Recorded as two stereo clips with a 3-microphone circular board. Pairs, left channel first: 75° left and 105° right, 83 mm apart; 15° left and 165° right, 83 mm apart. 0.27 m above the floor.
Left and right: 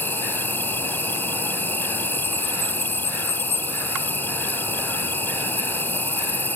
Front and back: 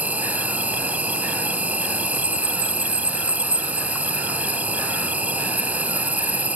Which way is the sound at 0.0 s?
130° left.